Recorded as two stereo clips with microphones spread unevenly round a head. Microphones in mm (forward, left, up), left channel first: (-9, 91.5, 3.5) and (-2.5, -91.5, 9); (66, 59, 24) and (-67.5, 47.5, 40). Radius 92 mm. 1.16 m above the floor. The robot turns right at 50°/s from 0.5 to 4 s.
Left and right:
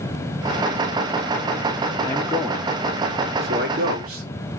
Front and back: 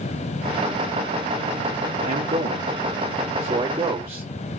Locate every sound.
2.0 s a man speaking: 165° left, 3 m; by 4.2 s 95° right, 3 m